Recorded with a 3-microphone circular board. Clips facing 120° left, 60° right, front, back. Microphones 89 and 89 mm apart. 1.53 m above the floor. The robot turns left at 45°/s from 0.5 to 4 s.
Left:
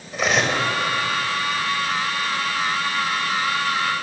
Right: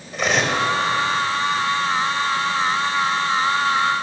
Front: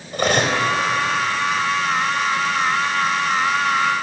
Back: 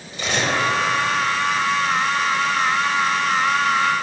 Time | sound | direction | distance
0.1 | cutlery clinking | 30° left | 4 m